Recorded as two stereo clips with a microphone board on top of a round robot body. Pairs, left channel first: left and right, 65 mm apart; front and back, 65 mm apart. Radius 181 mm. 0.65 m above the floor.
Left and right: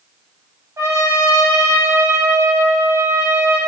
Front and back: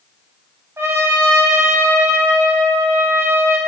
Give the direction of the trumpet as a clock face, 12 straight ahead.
4 o'clock.